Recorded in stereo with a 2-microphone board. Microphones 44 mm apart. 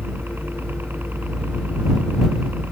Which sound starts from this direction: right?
A helicopter, at 0.0 s.